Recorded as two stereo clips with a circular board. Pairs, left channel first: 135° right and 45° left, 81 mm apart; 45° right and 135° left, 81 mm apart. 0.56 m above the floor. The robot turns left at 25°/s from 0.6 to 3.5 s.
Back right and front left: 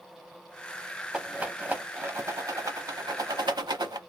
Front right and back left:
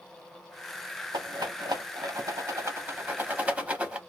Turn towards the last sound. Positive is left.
turn(degrees=65)